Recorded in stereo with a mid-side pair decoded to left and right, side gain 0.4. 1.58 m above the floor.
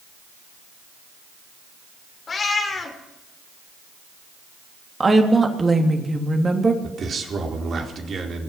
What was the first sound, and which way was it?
A cat meowing, 45° left.